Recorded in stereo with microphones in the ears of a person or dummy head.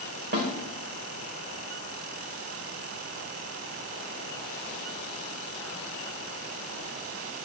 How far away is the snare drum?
About 1.5 m.